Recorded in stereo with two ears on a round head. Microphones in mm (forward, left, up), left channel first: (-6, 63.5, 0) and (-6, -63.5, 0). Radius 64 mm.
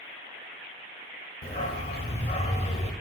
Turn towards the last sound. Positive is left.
turn(degrees=45)  # may be behind; listen again after turning